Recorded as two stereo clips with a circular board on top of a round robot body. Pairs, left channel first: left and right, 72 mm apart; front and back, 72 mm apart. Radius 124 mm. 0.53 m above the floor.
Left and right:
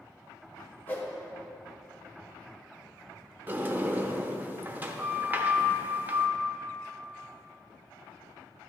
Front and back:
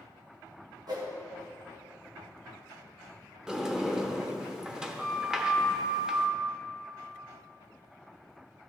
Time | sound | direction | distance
0.9 | a whoosh | 155° left | 2 m
3.5 | a sliding door | 110° right | 1.1 m